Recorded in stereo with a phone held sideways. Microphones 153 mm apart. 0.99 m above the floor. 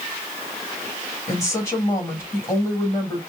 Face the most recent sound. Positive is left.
turn(degrees=20)  # may be behind; listen again after turning